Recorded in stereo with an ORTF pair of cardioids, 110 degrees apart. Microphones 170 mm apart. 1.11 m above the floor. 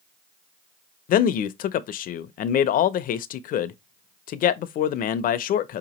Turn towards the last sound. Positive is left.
turn(degrees=55)